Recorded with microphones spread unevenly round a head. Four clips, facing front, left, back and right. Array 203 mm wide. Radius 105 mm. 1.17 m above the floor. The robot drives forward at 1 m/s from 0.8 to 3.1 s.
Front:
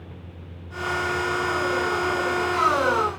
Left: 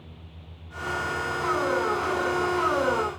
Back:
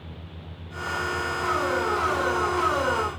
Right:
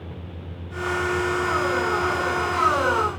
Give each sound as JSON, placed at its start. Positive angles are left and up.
{"t": 0.0, "sound": "a vehicle", "azimuth_deg": -80}